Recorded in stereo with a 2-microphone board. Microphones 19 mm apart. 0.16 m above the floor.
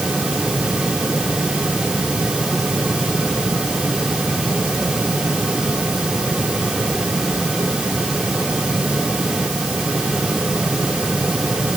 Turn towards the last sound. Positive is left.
No sound to turn to.